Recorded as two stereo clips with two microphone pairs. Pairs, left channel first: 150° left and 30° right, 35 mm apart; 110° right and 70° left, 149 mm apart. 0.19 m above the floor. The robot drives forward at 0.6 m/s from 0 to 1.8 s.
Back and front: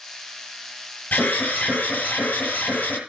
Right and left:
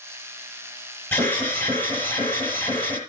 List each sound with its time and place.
1.1 s an alarm: 175° left, 6.5 m